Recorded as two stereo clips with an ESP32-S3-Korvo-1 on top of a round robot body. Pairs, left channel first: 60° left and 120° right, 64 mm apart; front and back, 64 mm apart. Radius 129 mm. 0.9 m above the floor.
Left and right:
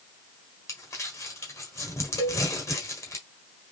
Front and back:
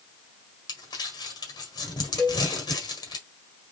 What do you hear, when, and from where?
0.7 s crumpling: 10° left, 1.5 m
2.2 s a cowbell: 80° left, 2.5 m